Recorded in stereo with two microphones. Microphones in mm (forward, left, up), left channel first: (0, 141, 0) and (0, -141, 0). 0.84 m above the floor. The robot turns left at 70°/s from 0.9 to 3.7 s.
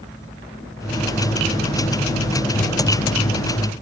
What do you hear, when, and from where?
Only background noise.